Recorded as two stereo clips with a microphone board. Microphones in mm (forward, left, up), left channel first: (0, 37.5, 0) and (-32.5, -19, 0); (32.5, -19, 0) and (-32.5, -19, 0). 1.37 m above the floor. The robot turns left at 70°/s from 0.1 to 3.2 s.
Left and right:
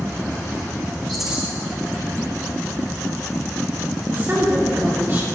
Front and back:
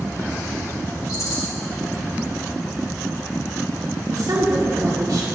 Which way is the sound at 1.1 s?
25° right.